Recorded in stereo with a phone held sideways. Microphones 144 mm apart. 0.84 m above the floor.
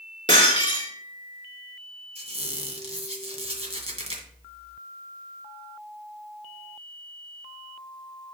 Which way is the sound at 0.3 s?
35° left (ahead or behind).